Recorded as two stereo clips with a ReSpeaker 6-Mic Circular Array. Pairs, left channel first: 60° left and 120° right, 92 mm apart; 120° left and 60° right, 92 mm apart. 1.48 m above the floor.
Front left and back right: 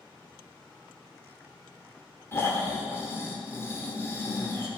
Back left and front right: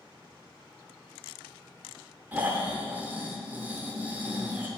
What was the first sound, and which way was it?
Snoring, 5° left.